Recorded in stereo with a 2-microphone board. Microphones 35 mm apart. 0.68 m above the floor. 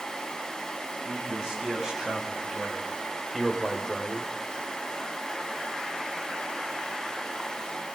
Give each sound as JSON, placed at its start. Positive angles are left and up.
{"t": 1.1, "sound": "a man speaking", "side_deg": -20, "distance_m": 6.0}